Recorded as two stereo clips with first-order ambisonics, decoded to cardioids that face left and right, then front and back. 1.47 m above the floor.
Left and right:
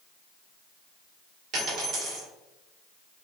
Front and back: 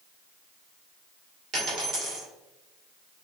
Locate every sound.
1.5 s a dropped coin: 140° right, 1.8 m